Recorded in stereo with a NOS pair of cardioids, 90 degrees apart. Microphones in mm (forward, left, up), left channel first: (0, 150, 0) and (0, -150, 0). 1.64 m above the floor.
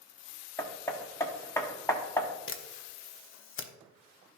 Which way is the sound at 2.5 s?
45° left.